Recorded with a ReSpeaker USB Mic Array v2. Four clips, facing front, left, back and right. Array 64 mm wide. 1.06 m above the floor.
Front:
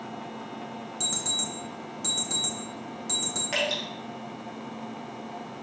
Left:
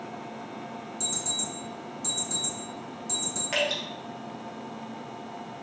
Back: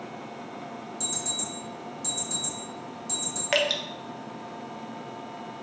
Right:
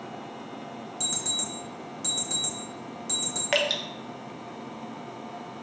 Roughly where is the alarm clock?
Ahead right.